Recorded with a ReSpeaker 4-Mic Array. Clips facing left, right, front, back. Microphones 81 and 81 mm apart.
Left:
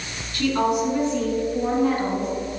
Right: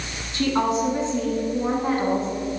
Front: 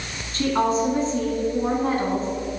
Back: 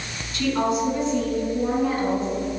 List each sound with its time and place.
0.3 s a woman speaking: 35° right, 1.8 m